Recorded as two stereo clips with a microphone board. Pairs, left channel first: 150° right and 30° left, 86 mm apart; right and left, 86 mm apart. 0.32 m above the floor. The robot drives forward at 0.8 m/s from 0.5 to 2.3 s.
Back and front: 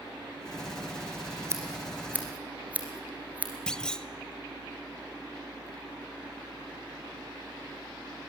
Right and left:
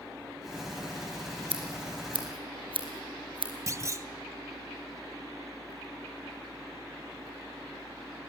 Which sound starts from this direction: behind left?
A clunk, at 3.7 s.